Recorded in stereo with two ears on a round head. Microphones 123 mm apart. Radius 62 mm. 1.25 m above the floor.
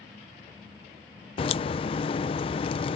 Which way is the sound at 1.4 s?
40° left (ahead or behind).